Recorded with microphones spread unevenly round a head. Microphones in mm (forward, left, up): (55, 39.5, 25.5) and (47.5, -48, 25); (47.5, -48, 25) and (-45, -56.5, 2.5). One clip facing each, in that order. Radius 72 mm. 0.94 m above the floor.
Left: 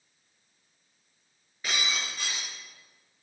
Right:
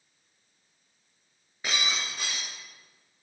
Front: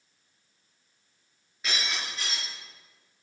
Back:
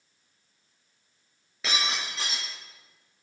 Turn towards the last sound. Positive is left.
turn(degrees=-170)